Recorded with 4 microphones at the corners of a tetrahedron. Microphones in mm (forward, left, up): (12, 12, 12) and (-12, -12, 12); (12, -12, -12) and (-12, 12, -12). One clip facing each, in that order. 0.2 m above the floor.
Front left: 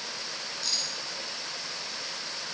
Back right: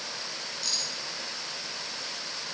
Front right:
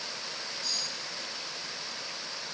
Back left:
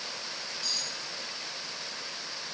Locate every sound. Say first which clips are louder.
0.6 s cutlery clinking: even, back left 1 dB; 130° left, 1.5 m